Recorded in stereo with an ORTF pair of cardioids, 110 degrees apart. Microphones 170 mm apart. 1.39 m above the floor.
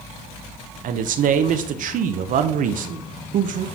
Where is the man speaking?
55° right, 0.8 m.